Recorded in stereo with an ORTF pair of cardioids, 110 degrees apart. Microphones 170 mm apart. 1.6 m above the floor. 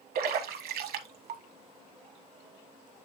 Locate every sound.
0.1 s a splash: 60° right, 1.3 m